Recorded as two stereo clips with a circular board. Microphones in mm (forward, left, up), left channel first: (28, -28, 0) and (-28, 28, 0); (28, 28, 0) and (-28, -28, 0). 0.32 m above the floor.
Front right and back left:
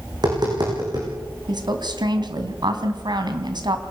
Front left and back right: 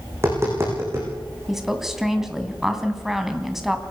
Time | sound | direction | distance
0.1 | tapping | 170° left | 9 m
1.5 | a woman speaking | 140° left | 3 m